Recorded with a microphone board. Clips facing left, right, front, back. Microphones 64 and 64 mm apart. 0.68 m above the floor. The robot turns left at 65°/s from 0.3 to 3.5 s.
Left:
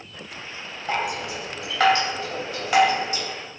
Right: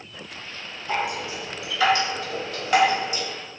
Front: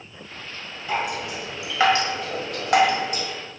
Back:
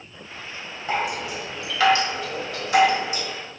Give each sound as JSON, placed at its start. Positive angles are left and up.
{"t": 0.9, "sound": "dripping", "azimuth_deg": 125, "distance_m": 0.9}